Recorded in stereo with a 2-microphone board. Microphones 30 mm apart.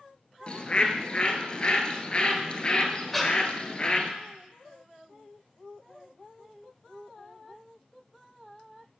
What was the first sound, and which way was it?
A bird, 35° left (ahead or behind).